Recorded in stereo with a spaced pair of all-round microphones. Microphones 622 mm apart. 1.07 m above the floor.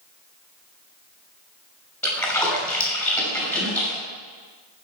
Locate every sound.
2.0 s a splash: centre (ahead or behind), 5.5 m